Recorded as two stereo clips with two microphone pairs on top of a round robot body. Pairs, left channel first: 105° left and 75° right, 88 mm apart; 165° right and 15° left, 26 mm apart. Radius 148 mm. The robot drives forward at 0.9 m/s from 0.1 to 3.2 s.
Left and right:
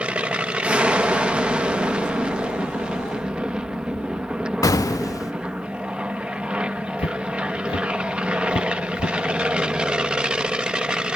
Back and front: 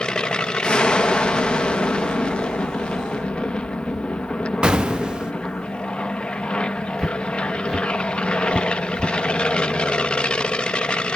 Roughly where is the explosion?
Ahead left.